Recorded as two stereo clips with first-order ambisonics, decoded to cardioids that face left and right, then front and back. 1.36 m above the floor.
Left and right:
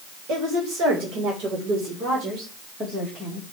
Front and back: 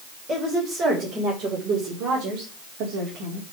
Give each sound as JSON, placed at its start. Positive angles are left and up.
{"t": 0.3, "sound": "a woman speaking", "azimuth_deg": -120, "distance_m": 4.0}